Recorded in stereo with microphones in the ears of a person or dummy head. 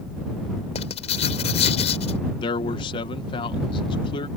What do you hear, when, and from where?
0.8 s writing: 40° left (ahead or behind)
2.4 s a man speaking: 30° left (ahead or behind)